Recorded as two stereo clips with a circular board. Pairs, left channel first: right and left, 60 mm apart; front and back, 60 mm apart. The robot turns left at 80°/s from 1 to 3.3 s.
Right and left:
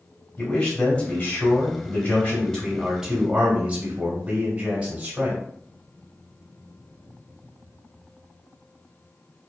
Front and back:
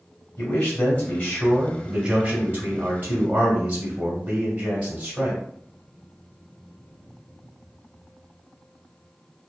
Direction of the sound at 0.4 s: 40° right.